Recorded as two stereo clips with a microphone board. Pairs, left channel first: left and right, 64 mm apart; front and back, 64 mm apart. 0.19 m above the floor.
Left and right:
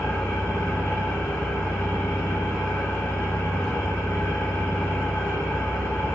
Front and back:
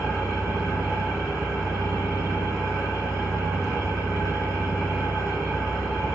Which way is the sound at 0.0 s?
85° left.